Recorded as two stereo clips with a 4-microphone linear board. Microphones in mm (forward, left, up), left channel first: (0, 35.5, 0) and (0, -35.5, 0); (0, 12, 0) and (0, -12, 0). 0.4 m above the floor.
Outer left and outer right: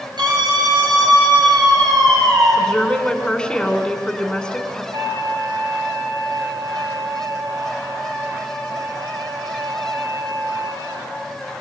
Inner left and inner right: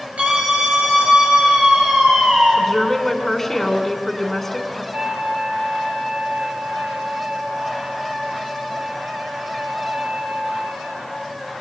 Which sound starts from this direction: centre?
A woman speaking, at 2.5 s.